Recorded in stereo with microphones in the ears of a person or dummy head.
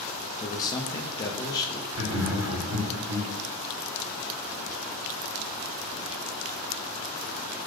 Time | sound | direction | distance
0.4 | a man speaking | 25° left (ahead or behind) | 0.5 m
1.9 | laughter | 65° right (ahead or behind) | 0.9 m